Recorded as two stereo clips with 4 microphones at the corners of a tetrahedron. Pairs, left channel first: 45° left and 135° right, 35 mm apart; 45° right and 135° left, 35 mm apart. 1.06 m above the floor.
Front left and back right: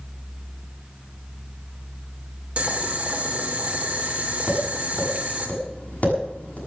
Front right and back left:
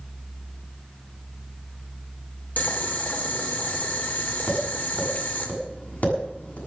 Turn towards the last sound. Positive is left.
turn(degrees=0)